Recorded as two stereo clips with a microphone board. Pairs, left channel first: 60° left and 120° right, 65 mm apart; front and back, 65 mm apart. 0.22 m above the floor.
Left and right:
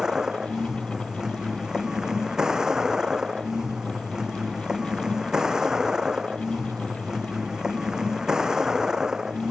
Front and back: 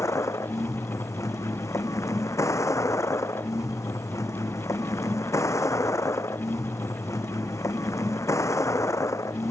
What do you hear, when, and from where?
0.0 s a vehicle: 40° right